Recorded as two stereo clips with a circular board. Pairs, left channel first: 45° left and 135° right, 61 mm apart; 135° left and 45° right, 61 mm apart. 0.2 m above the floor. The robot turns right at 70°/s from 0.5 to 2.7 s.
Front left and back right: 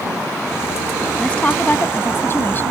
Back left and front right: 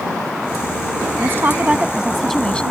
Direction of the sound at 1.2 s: 30° right.